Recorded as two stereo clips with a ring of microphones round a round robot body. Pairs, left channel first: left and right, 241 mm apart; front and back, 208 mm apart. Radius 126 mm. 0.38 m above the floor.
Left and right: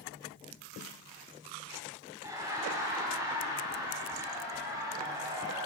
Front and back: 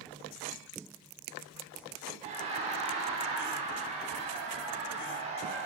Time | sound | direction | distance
2.2 | laughter | 155° right | 1.2 m